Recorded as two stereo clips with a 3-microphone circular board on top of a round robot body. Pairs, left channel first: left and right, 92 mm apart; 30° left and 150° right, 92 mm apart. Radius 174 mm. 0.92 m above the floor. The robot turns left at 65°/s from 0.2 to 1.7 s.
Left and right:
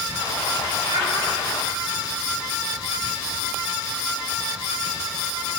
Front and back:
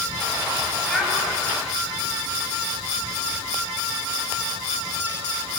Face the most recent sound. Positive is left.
turn(degrees=-105)